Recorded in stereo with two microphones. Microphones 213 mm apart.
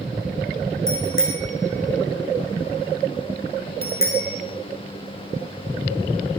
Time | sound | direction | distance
0.9 | a bicycle bell | 80° left | 5.5 m